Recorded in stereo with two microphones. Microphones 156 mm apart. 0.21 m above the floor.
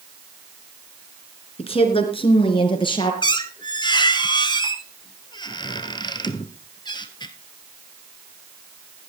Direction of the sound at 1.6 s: 40° left (ahead or behind).